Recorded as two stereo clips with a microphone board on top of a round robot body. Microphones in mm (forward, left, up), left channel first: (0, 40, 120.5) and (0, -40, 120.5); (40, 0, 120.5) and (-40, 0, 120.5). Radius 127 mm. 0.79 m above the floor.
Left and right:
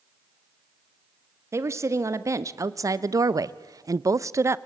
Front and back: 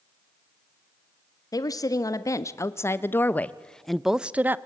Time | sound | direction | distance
1.5 | a woman speaking | 35° right | 1.6 m